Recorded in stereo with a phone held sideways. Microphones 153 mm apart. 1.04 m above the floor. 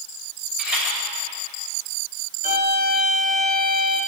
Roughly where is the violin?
Right.